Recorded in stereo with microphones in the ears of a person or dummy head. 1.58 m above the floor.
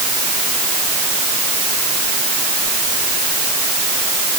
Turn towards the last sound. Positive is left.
No sound to turn to.